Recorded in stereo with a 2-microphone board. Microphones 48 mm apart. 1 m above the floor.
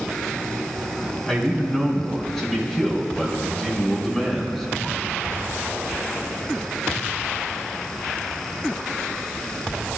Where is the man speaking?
5° left (ahead or behind), 4.5 m; by 5.3 s centre (ahead or behind), 2 m.